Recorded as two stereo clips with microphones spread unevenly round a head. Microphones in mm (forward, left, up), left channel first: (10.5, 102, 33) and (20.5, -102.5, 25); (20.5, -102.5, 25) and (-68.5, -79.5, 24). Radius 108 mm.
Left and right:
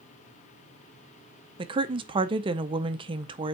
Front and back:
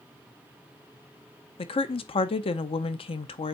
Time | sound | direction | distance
1.6 | a woman speaking | 20° right | 0.6 m